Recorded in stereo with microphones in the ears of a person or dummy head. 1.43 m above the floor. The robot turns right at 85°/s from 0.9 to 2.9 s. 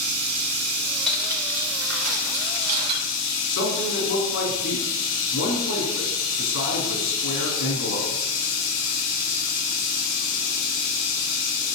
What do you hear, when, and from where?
0.0 s running water: 100° right, 6 m; by 11.8 s 70° left, 6 m
1.1 s cutlery clinking: 175° left, 3 m; by 3.0 s 30° right, 3 m
3.5 s a man speaking: 75° left (ahead or behind), 4 m